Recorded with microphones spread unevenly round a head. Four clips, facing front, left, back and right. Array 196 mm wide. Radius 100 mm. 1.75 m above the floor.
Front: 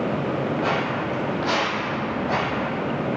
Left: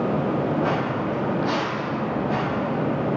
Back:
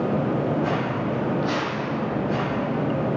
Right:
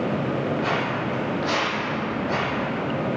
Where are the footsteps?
40° left, 3 m; by 2.6 s straight ahead, 3.5 m.